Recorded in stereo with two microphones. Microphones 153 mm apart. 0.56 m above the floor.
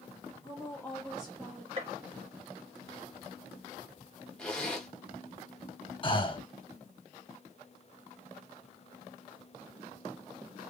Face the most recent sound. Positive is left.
turn(degrees=35)  # may be behind; listen again after turning